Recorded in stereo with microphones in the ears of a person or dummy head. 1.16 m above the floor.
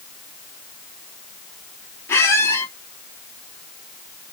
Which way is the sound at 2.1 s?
10° left (ahead or behind).